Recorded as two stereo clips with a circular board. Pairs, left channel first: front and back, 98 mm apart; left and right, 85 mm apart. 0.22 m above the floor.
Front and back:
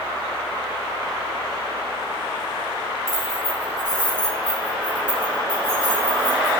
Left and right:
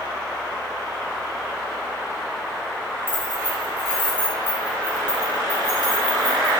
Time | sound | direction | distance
3.1 | keys jangling | 45° left | 1.1 m